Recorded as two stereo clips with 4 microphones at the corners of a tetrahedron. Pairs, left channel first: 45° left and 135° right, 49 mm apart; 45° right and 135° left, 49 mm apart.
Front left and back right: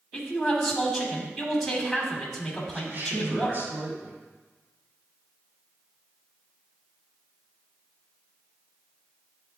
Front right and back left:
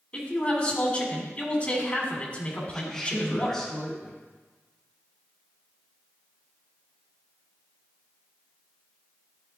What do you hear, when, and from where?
0.1 s a man speaking: 40° right, 1.4 m
2.7 s a woman speaking: 125° right, 2.0 m